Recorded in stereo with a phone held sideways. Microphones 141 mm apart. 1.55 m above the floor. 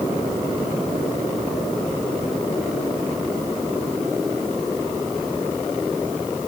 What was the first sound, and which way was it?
Only background noise.